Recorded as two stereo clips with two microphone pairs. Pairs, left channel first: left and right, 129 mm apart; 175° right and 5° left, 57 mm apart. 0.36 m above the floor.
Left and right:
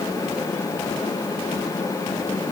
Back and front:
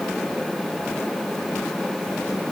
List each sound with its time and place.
Only background noise.